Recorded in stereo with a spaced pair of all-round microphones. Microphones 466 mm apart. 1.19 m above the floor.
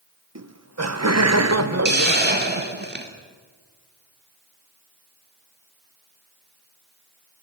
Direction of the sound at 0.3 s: 35° right (ahead or behind).